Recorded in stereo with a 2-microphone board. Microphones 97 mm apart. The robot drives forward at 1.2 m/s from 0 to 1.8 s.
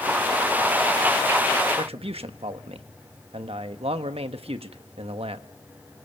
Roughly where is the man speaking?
Right.